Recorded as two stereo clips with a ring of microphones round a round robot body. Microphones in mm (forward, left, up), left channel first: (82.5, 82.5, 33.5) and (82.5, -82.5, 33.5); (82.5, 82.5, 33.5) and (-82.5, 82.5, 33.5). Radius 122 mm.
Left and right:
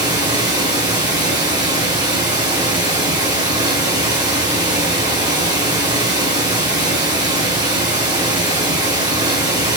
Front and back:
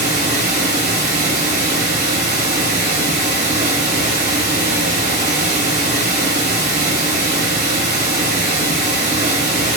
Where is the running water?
150° right, 1.2 m.